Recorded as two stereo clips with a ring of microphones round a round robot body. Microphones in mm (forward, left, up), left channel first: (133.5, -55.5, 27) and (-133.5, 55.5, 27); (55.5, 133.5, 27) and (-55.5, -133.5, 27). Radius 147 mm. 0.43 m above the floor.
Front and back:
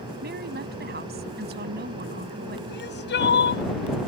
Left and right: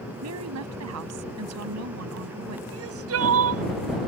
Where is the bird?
No bird in this recording.